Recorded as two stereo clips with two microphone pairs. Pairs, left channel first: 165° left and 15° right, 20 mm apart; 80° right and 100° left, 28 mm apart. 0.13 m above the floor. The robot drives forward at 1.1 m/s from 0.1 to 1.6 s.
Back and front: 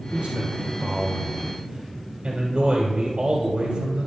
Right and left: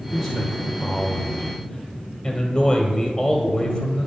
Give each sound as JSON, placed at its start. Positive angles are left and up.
{"t": 0.1, "sound": "a man speaking", "azimuth_deg": -20, "distance_m": 3.0}